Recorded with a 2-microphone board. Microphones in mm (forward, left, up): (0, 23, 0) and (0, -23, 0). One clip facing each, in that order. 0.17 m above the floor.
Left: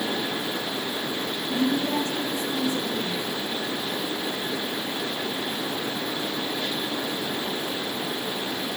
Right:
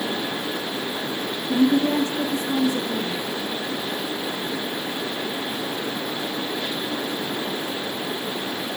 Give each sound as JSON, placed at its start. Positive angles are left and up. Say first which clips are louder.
{"t": 1.5, "sound": "a woman speaking", "louder": "right 6 dB", "side_deg": -40, "distance_m": 9.5}